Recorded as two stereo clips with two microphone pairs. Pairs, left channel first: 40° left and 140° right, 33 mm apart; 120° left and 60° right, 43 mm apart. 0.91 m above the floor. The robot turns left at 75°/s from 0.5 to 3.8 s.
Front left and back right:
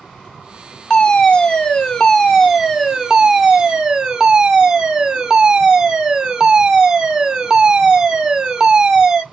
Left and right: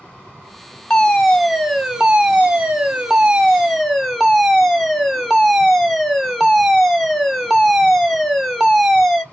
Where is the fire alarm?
65° left, 1.2 m; by 9.2 s 150° right, 1.2 m.